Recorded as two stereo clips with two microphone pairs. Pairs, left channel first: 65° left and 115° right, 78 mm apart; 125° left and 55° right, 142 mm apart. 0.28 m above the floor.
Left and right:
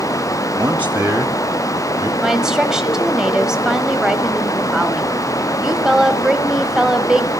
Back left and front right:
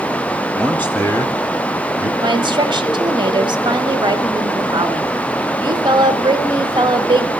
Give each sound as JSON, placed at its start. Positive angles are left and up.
{"t": 0.6, "sound": "a man speaking", "azimuth_deg": -150, "distance_m": 1.0}
{"t": 2.2, "sound": "a woman speaking", "azimuth_deg": -35, "distance_m": 1.3}